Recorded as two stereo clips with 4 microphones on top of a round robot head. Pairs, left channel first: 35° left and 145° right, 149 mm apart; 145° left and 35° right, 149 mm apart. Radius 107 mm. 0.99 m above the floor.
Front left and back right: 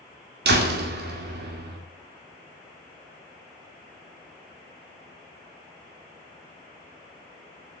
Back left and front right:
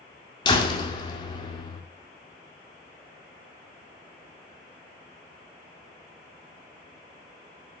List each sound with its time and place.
0.5 s a door slam: 150° right, 2 m